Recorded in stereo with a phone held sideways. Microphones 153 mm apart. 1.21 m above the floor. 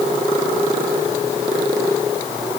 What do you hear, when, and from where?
Only background noise.